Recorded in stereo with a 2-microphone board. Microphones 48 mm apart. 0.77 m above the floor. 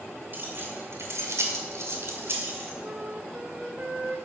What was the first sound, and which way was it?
Keys jangling, 40° right (ahead or behind).